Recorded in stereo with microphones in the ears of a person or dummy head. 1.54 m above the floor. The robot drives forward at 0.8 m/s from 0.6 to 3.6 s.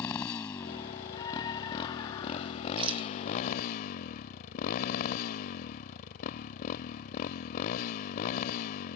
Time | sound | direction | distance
0.0 | a motorcycle | 30° left (ahead or behind) | ?
1.1 | a scream | 20° left (ahead or behind) | ?
2.8 | a rattle | 25° right (ahead or behind) | ?